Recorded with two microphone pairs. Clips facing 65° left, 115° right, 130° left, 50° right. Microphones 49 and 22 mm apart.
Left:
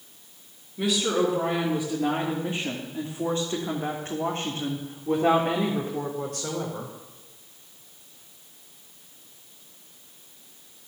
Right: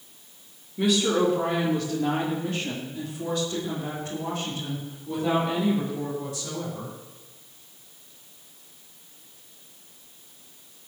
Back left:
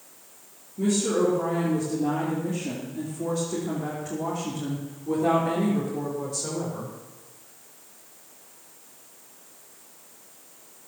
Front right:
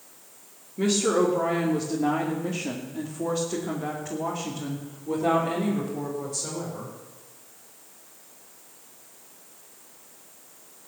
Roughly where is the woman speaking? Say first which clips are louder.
Right 2 dB, front right 1 dB; ahead right.